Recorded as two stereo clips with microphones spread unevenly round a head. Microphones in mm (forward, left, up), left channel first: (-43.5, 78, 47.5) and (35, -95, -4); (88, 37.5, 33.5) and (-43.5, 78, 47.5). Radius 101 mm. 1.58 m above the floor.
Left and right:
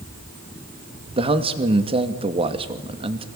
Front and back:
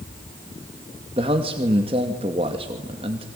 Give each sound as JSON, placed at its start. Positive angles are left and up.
{"t": 1.2, "sound": "a man speaking", "azimuth_deg": -135, "distance_m": 2.5}